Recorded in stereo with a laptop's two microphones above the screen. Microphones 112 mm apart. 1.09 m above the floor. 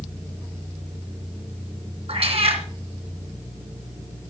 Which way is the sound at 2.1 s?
60° right (ahead or behind).